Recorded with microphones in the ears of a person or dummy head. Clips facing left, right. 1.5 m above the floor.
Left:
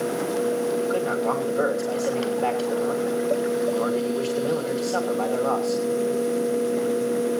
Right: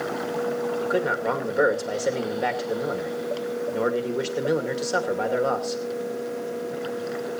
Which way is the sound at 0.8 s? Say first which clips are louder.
Left 1 dB; 20° right (ahead or behind).